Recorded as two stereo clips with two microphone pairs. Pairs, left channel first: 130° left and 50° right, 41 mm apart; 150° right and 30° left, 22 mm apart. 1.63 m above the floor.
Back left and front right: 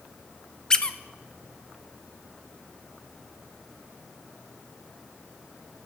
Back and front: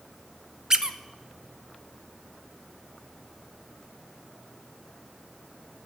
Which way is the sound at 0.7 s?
65° left.